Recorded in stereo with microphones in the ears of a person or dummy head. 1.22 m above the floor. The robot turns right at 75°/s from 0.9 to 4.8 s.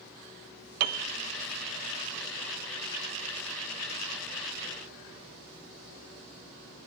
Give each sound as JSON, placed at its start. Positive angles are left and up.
{"t": 0.8, "sound": "a piano", "side_deg": -50, "distance_m": 0.7}